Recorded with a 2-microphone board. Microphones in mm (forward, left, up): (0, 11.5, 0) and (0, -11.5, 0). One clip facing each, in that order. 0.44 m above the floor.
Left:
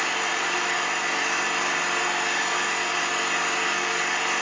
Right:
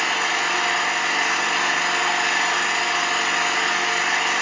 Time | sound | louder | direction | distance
0.0 | an engine running | right 4 dB | 45° right (ahead or behind) | 2.5 m